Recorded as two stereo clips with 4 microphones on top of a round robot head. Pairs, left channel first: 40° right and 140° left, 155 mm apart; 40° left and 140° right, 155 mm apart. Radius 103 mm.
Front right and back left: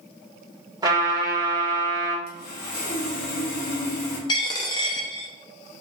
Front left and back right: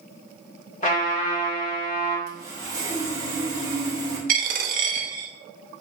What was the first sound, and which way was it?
A trumpet, 75° left.